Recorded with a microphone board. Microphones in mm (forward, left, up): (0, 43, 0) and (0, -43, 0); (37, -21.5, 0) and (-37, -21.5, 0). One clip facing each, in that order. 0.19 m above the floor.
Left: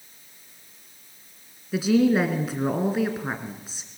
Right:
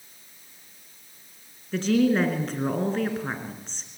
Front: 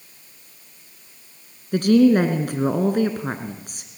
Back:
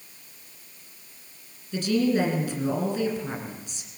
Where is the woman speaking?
10° left, 2 m.